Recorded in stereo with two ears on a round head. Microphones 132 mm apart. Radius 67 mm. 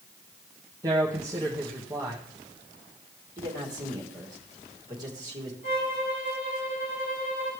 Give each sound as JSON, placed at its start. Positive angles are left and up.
{"t": 0.8, "sound": "a man speaking", "side_deg": -20, "distance_m": 1.2}
{"t": 3.4, "sound": "a man speaking", "side_deg": -25, "distance_m": 3.0}
{"t": 5.6, "sound": "a violin", "side_deg": 40, "distance_m": 7.0}